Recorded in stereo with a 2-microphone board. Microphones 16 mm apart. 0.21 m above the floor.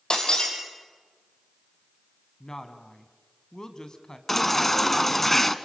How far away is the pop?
No pop in this recording.